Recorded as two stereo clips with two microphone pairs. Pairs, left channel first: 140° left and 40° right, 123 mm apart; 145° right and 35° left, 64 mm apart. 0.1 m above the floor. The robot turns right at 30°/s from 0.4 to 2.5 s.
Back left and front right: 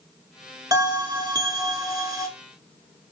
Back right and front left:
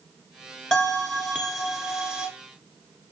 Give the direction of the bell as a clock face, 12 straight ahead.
2 o'clock.